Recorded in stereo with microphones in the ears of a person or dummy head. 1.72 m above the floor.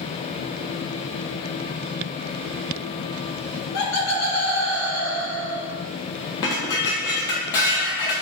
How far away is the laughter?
About 1.3 m.